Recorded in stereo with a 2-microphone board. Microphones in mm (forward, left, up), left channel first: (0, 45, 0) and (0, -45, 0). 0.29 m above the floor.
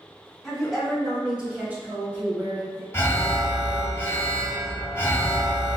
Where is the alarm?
30° left (ahead or behind), 1.1 m.